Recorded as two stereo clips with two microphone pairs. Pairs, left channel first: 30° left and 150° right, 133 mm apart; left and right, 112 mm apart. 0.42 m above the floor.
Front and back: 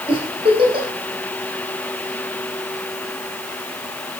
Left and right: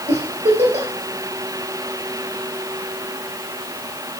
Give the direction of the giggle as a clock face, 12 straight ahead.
3 o'clock.